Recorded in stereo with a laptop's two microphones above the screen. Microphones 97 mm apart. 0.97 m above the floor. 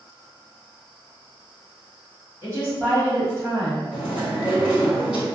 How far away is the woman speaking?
About 1.3 m.